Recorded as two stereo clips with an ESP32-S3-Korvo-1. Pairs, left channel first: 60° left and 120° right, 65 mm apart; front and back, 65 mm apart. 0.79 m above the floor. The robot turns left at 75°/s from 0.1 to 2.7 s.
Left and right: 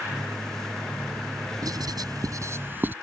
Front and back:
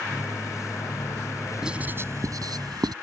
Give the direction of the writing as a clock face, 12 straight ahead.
3 o'clock.